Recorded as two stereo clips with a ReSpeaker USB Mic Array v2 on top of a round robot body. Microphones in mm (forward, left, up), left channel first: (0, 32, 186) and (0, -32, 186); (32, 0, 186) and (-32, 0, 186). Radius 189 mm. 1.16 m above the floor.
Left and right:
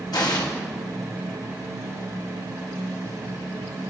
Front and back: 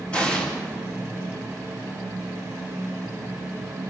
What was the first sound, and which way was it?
An explosion, 75° left.